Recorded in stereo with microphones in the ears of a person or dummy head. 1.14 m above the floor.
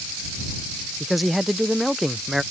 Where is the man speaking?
Centre (ahead or behind).